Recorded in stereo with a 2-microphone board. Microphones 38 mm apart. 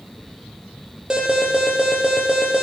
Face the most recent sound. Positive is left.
turn(degrees=-15)  # may be behind; listen again after turning